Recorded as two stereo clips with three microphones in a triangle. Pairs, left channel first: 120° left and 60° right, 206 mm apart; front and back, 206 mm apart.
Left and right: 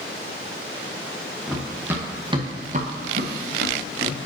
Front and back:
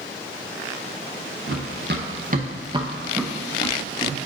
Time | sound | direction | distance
1.5 | running footsteps | 150° right | 1.7 m